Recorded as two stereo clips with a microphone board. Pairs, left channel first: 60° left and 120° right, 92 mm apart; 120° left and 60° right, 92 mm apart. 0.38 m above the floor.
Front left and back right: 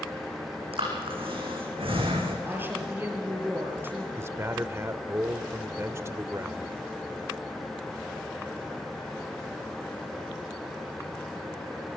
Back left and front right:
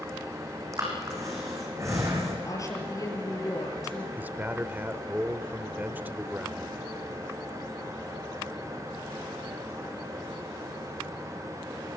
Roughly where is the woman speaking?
Behind.